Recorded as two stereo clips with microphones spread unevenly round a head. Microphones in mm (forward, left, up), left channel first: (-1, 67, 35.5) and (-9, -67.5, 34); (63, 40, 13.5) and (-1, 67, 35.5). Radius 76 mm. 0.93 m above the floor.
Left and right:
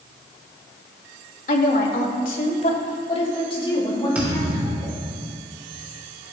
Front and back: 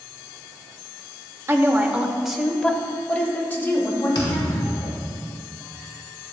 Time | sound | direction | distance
1.5 | a woman speaking | 100° left | 2.0 m
4.2 | a thud | 15° right | 4.5 m